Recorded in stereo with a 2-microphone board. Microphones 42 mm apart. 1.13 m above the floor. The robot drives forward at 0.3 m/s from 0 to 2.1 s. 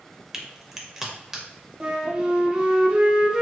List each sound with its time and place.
0.3 s a crack: 10° right (ahead or behind), 0.6 m
1.8 s a flute: 20° right (ahead or behind), 0.8 m